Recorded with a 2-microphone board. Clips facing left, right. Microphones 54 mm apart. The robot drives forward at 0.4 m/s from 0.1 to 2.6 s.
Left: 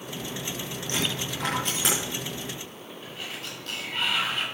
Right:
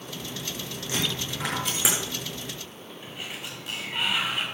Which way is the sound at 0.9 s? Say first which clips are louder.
Even; 5° right (ahead or behind).